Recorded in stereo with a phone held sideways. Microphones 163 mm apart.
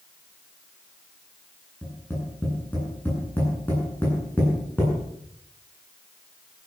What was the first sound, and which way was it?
Tapping, 15° left (ahead or behind).